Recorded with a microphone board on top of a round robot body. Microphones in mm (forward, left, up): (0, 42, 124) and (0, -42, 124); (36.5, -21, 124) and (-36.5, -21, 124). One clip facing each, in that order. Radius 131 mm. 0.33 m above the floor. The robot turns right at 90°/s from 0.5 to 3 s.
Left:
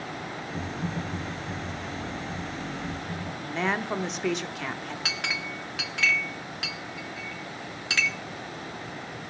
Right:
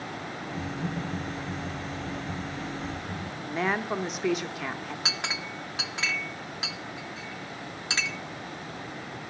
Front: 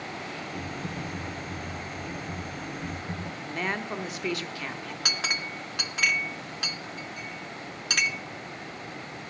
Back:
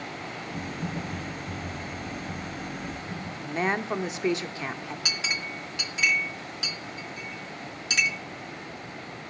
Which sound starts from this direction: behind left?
Typing on a keyboard, at 0.5 s.